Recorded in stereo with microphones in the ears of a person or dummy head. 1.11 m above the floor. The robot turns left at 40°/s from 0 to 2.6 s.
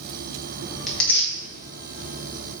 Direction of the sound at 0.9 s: 5° right (ahead or behind).